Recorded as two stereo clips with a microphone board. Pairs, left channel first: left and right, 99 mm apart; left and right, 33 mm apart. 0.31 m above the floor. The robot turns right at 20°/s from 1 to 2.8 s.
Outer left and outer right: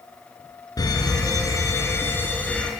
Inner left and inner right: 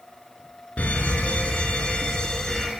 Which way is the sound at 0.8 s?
135° left.